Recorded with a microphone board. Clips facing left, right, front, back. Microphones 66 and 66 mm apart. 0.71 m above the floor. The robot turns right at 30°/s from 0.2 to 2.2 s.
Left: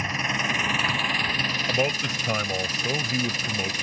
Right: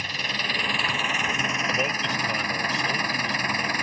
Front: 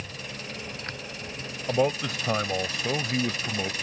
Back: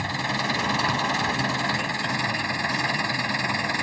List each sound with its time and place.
0.0 s an engine running: 160° left; by 3.8 s 140° right
1.7 s a man speaking: 15° left; by 3.7 s 30° left